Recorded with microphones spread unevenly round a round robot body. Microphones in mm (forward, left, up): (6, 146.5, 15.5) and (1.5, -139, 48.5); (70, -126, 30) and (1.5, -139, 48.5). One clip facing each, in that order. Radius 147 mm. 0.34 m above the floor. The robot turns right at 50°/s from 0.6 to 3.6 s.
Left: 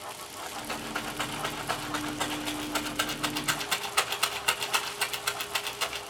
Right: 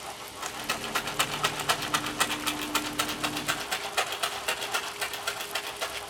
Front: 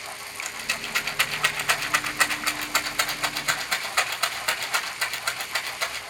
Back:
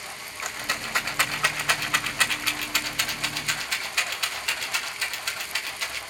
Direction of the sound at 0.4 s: 125° right.